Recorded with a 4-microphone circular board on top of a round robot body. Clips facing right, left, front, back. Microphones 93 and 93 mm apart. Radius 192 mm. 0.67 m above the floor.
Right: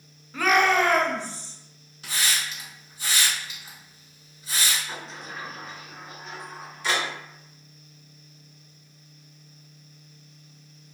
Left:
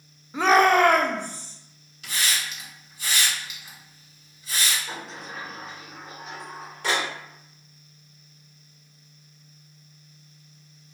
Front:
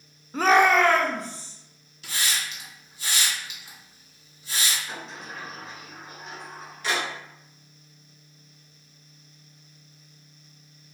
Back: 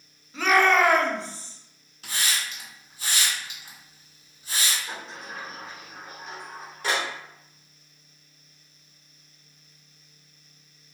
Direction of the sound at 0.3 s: 20° left.